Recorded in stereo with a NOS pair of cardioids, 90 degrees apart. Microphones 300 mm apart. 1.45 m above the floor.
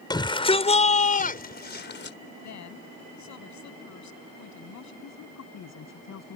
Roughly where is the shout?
Ahead.